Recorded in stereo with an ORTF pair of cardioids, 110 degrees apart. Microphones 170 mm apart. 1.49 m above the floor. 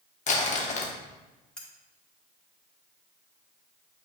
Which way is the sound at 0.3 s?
45° left.